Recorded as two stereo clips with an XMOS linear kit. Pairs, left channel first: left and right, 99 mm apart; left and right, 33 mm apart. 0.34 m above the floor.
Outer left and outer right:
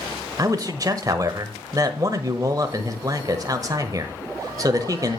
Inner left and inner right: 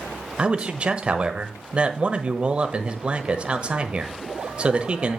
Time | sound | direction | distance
0.4 | a man speaking | 35° right (ahead or behind) | 1.2 m